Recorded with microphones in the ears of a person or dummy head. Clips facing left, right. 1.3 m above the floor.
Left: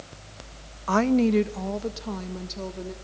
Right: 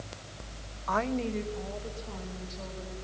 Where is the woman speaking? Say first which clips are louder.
Left 10 dB; 40° left (ahead or behind), 0.5 m; by 2.9 s 70° left (ahead or behind), 2 m.